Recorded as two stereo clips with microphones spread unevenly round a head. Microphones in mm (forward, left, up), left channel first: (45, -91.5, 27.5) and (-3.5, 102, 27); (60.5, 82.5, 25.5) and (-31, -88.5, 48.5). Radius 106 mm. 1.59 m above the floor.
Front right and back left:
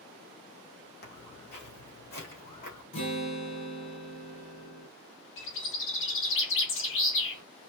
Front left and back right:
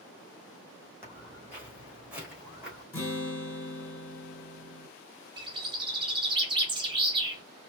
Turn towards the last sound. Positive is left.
turn(degrees=-50)